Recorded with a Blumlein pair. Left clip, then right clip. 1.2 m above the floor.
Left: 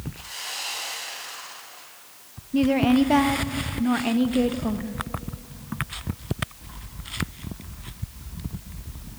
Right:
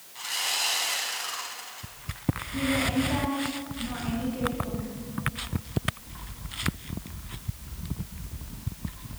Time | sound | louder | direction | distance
0.1 | sawing | right 6 dB | 25° right | 3.5 m
2.5 | a woman speaking | left 7 dB | 55° left | 1.0 m